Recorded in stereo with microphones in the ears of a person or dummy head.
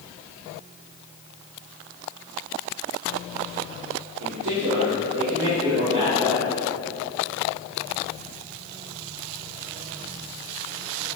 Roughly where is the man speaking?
Right.